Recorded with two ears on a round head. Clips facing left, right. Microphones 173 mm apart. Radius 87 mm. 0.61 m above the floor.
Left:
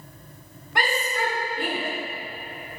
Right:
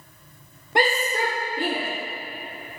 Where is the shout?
30° right (ahead or behind), 2 m; by 1.9 s 60° right (ahead or behind), 3 m.